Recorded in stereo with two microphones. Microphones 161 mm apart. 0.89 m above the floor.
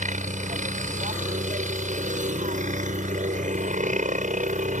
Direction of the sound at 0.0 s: 50° right (ahead or behind).